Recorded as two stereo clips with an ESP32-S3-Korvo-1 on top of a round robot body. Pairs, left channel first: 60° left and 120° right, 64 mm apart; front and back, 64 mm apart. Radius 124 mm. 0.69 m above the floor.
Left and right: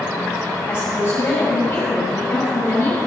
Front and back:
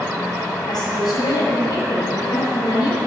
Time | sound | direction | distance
0.7 | a woman speaking | 5° left | 5 m